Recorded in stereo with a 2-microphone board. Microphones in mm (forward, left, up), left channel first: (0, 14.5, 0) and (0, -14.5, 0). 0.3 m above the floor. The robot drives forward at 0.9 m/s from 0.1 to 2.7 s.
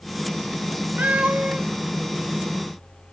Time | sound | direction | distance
1.0 | a cat meowing | 75° right (ahead or behind) | 1.6 m